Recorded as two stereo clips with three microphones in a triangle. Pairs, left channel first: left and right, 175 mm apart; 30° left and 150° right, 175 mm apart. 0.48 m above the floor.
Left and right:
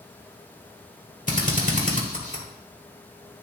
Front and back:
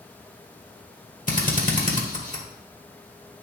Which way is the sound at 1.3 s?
60° left.